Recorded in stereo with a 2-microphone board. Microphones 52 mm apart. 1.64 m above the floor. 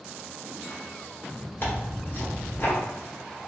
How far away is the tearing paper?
About 1.4 m.